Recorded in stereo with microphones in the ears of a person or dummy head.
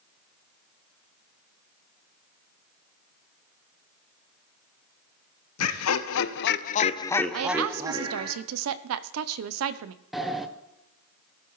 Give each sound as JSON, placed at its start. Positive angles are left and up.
{"t": 5.6, "sound": "laughter", "side_deg": 85, "distance_m": 1.1}
{"t": 7.3, "sound": "a woman speaking", "side_deg": -75, "distance_m": 0.6}
{"t": 10.1, "sound": "a sliding door", "side_deg": 0, "distance_m": 0.7}